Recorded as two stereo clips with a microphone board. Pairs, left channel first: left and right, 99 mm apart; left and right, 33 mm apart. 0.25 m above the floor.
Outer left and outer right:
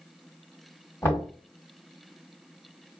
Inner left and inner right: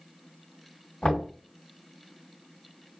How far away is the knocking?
About 1.6 m.